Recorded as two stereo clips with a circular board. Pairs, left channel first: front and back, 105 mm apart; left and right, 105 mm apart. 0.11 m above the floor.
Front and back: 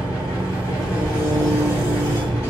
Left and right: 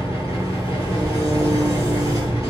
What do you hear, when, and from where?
0.0 s an engine running: 50° right, 1.8 m
1.0 s chewing: 50° left, 1.2 m